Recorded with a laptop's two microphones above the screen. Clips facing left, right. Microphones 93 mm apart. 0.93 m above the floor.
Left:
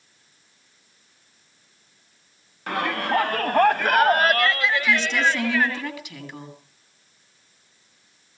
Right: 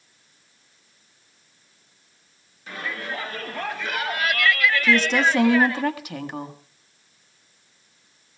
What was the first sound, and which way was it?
A shout, 65° left (ahead or behind).